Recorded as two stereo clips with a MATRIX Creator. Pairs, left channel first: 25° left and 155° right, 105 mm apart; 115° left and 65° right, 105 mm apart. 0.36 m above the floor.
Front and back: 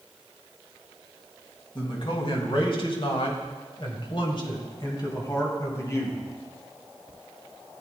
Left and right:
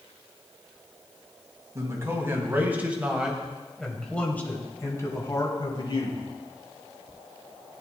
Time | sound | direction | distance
1.8 | a man speaking | 10° right | 3 m